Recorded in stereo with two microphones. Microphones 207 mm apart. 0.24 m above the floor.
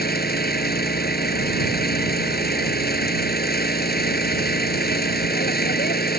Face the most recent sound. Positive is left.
turn(degrees=45)  # may be behind; listen again after turning